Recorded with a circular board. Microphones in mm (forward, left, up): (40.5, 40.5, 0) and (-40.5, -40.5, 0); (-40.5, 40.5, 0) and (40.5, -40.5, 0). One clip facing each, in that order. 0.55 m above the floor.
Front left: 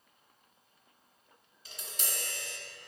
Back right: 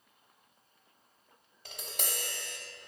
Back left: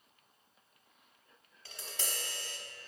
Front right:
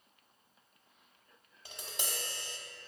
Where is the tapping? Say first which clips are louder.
Back right 3 dB, front right 1 dB; 115° right, 0.8 m.